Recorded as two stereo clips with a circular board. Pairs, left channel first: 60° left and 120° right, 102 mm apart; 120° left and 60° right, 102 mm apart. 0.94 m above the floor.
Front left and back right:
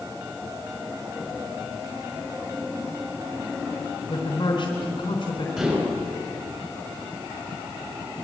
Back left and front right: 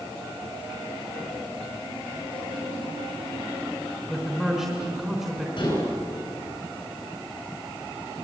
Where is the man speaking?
25° left, 3.5 m.